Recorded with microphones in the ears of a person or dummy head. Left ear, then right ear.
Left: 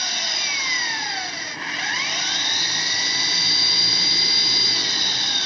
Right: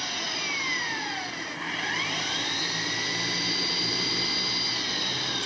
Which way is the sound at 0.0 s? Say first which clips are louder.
Left 7 dB; 25° left (ahead or behind).